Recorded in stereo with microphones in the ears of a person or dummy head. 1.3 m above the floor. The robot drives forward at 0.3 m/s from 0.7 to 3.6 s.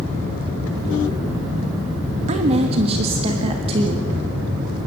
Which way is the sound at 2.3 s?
35° right (ahead or behind).